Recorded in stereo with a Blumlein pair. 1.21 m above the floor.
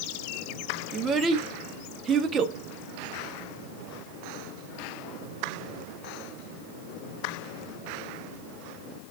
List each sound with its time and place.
0.9 s a child speaking: 25° right, 1.1 m